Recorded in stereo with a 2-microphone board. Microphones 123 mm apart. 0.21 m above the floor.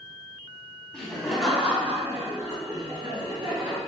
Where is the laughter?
5° left (ahead or behind), 1.3 m; by 3.8 s 50° right (ahead or behind), 1.7 m.